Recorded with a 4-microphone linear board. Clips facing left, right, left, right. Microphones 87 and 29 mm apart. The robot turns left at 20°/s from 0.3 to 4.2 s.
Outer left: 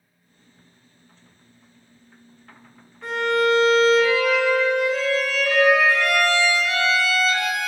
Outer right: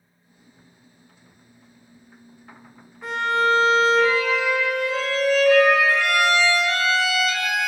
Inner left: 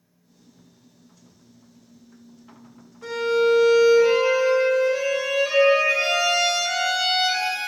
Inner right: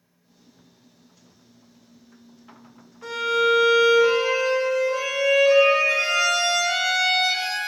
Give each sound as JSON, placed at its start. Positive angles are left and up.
{"t": 3.0, "sound": "a violin", "side_deg": -5, "distance_m": 1.1}